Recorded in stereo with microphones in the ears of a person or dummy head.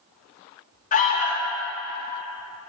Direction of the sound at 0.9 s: 35° left (ahead or behind).